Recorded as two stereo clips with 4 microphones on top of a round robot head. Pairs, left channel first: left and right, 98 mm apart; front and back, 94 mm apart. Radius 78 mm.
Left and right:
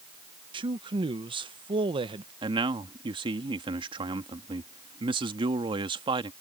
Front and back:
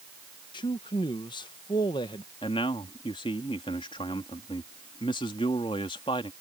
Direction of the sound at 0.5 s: 55° right.